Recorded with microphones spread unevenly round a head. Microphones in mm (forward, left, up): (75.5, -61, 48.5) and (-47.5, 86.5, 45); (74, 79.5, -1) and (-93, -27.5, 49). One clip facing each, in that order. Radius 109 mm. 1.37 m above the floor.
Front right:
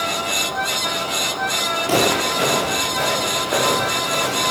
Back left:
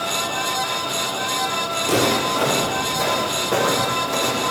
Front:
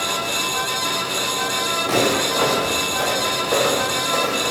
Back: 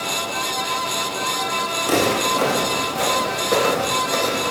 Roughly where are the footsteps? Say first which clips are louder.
Front right 1 dB, even; behind.